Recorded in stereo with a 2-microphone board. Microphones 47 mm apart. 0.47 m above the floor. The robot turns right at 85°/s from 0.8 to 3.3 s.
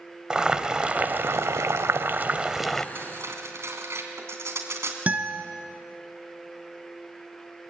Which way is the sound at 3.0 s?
50° right (ahead or behind).